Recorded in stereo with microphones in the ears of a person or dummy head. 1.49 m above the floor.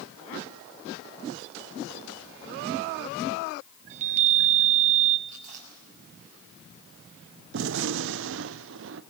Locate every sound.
3.9 s a chime: 40° right (ahead or behind), 1.5 m
5.3 s chewing: 45° right (ahead or behind), 6.5 m
7.5 s a gunshot: 60° right (ahead or behind), 0.7 m